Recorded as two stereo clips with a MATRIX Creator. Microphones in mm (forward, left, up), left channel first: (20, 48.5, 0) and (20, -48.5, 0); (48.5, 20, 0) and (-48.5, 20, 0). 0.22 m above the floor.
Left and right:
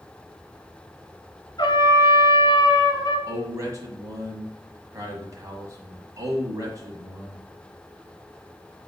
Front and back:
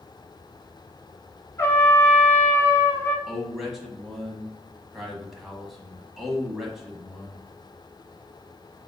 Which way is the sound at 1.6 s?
55° left.